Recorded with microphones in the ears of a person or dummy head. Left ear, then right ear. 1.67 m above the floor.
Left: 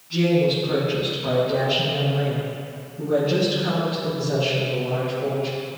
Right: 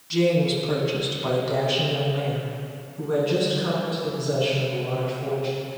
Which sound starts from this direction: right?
A woman speaking, at 0.1 s.